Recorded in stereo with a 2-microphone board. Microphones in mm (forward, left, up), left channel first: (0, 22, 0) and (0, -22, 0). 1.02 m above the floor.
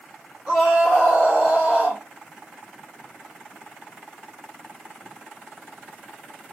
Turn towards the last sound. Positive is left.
turn(degrees=-30)  # may be behind; listen again after turning